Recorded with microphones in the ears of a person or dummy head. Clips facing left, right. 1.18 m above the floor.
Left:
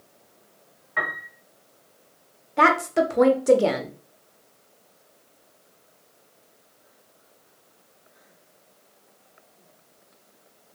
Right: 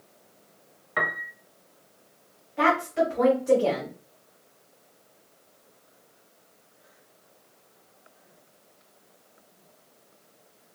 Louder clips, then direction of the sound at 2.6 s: Left 3 dB; 55° left (ahead or behind).